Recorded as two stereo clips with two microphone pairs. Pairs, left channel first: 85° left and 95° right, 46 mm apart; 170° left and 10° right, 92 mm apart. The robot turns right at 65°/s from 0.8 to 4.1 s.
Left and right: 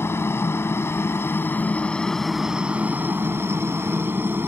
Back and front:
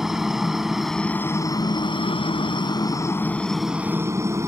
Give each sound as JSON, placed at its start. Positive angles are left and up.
{"t": 0.0, "sound": "a helicopter", "azimuth_deg": 75}